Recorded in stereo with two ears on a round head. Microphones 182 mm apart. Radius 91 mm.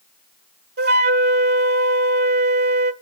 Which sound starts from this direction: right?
A flute, at 0.8 s.